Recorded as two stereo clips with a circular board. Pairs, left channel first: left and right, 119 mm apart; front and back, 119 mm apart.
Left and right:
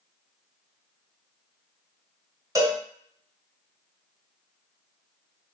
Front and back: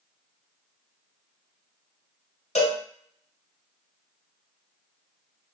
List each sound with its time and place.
2.5 s a cowbell: 25° right, 1.4 m